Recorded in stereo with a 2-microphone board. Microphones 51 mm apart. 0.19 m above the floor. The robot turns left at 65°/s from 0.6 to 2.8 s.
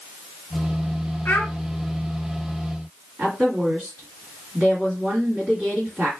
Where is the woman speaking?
15° right (ahead or behind), 2 m.